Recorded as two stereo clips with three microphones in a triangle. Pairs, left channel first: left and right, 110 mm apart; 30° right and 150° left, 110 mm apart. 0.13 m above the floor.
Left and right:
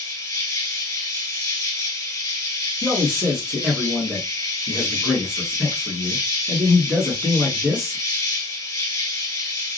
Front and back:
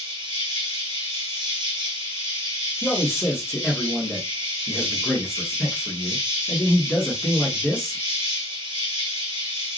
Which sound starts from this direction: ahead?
A man speaking, at 2.8 s.